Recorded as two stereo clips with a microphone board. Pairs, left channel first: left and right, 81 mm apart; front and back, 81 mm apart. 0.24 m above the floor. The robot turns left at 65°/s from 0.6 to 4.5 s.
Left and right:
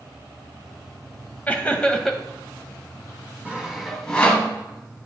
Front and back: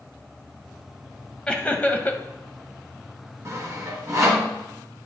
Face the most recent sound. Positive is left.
turn(degrees=140)